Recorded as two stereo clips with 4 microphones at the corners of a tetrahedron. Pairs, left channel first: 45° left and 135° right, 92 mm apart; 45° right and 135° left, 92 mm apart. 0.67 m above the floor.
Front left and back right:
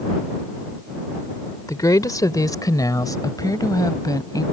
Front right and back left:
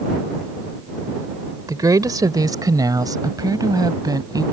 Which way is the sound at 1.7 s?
90° left.